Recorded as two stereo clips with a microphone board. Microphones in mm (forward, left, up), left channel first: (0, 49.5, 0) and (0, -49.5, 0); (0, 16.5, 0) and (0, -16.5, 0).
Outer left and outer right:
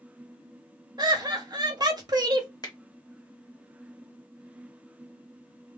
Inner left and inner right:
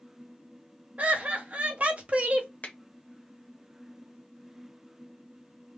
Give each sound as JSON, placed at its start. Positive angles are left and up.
{"t": 1.0, "sound": "laughter", "side_deg": -40, "distance_m": 0.7}
{"t": 2.6, "sound": "a finger snap", "side_deg": 40, "distance_m": 0.7}